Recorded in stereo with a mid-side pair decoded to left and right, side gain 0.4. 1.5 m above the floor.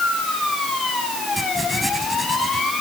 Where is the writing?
10° right.